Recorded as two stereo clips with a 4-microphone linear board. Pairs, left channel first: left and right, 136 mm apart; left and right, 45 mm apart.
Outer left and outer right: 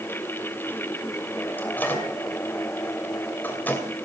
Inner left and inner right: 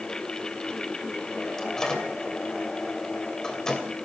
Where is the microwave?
15° left (ahead or behind), 2.5 m.